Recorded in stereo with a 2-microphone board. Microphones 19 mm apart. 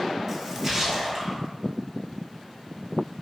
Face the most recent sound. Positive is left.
turn(degrees=-25)  # may be behind; listen again after turning